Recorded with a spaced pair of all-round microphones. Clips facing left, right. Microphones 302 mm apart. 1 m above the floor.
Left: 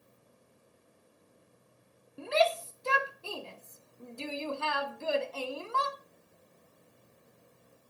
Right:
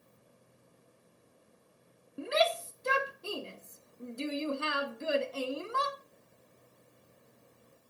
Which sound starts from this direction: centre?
A shout, at 2.2 s.